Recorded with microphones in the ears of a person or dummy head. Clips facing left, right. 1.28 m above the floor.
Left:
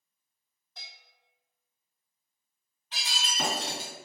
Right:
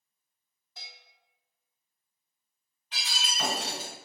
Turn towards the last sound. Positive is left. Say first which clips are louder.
# left 2 dB
turn(degrees=30)  # may be behind; listen again after turning